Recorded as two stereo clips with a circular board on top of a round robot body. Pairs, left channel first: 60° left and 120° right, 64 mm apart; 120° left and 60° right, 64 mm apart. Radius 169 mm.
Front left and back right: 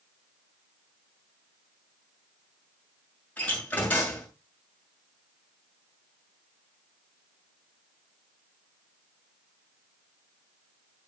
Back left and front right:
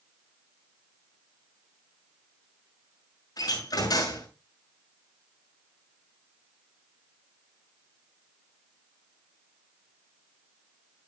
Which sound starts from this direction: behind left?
A door slam, at 3.4 s.